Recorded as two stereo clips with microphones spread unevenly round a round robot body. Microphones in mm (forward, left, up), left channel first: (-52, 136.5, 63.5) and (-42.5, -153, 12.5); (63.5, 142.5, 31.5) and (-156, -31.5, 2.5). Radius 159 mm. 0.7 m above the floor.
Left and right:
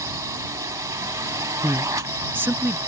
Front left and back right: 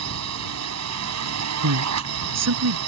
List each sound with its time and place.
0.0 s a drone: 165° right
1.6 s a man speaking: 170° right